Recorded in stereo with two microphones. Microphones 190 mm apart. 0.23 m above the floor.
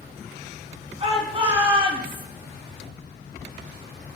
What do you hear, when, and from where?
1.0 s a shout: 30° right (ahead or behind), 2 m; by 2.2 s 25° right (ahead or behind), 1.7 m